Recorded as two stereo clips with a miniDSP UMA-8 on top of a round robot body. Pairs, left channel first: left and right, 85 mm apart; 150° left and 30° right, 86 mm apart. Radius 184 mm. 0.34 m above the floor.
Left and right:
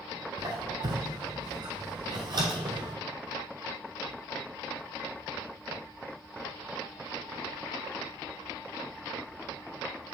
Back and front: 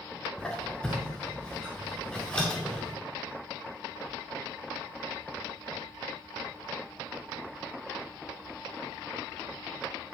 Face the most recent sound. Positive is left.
turn(degrees=-130)